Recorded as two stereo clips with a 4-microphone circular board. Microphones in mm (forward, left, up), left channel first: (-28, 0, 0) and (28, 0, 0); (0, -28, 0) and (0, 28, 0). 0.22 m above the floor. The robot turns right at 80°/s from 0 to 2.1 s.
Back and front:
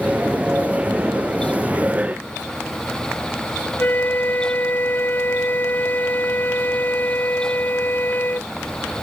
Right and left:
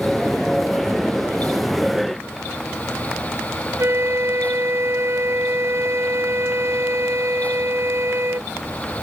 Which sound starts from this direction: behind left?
A flute, at 3.8 s.